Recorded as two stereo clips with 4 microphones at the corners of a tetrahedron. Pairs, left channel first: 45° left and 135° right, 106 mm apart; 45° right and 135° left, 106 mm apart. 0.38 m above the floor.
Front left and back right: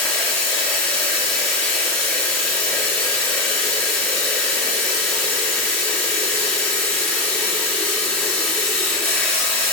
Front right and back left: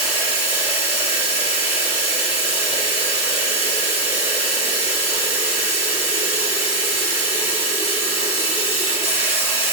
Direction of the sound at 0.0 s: 30° right.